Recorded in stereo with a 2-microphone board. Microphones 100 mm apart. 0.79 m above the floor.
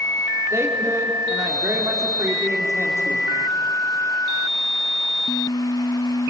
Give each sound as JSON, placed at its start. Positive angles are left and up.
{"t": 0.5, "sound": "a woman speaking", "side_deg": -30, "distance_m": 2.5}